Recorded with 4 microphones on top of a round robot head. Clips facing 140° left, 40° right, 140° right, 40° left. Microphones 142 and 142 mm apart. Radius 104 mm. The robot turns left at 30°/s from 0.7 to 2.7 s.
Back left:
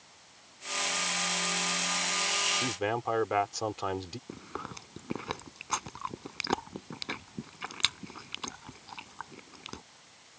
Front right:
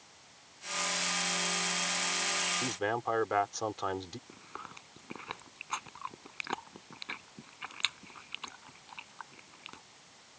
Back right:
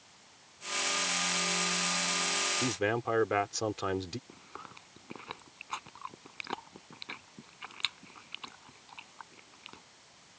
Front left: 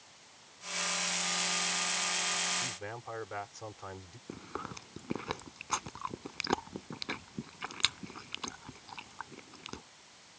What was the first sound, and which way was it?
A man speaking, 135° right.